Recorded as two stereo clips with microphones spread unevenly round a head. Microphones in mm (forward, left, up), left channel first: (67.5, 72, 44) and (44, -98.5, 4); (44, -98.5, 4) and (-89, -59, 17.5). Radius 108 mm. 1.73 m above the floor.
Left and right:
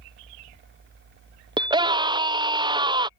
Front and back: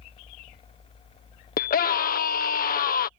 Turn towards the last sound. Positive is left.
turn(degrees=-30)